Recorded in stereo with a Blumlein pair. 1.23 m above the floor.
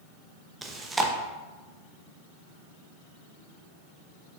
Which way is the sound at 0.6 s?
10° right.